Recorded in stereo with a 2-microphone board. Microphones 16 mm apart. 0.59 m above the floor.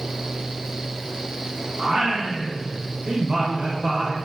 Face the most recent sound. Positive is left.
turn(degrees=-40)  # may be behind; listen again after turning